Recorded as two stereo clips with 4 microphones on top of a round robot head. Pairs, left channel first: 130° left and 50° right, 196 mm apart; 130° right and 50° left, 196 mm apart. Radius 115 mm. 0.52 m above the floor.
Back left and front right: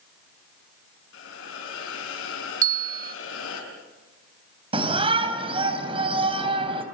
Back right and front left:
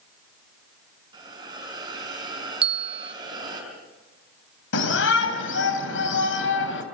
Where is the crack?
I don't hear a crack.